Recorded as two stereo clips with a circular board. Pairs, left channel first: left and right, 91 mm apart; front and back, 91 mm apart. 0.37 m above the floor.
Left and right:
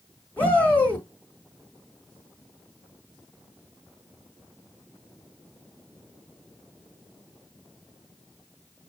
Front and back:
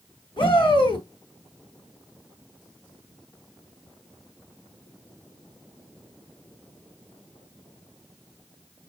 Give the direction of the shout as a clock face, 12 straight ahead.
11 o'clock.